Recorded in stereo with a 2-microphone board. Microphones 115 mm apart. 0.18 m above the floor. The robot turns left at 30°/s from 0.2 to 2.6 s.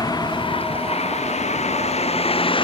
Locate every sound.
0.0 s a vehicle: 40° left (ahead or behind); by 2.6 s 50° left (ahead or behind)